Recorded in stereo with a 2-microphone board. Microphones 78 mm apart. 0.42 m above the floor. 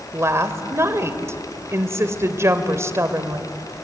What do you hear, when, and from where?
0.1 s a woman speaking: 40° right (ahead or behind), 1.7 m